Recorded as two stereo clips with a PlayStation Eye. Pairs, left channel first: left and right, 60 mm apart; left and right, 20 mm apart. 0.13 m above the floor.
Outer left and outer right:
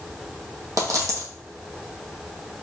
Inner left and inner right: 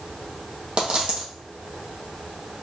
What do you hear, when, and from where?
0.8 s a dropped coin: 65° right (ahead or behind), 1.7 m